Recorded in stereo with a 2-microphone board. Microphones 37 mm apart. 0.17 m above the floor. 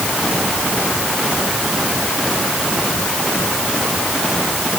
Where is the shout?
No shout in this recording.